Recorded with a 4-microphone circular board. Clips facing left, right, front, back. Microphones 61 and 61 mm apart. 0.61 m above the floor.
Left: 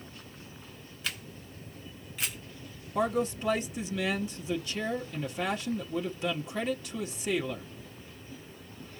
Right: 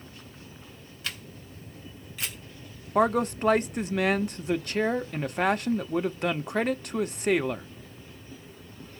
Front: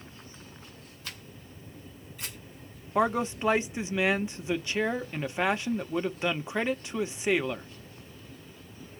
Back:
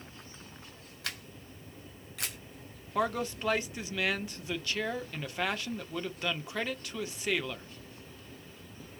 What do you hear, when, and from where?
1.0 s a camera shutter: straight behind, 3 m
3.0 s a man speaking: 65° right, 0.9 m